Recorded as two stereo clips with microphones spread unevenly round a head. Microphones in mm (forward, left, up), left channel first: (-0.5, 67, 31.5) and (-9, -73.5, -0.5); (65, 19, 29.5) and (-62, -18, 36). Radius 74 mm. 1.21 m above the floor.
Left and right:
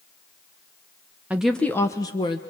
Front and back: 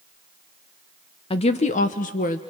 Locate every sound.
1.3 s a woman speaking: 20° right, 0.8 m; by 2.4 s 25° left, 1.3 m